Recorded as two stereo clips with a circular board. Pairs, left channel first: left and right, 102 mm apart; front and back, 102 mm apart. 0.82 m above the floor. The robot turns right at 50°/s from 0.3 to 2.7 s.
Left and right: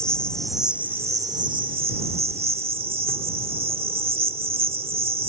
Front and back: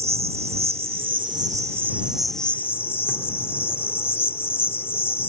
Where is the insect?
170° left; by 5.3 s 70° right.